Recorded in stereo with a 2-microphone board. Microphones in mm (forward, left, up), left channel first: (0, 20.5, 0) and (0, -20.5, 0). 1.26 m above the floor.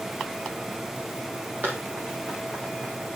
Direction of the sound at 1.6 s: 45° right (ahead or behind).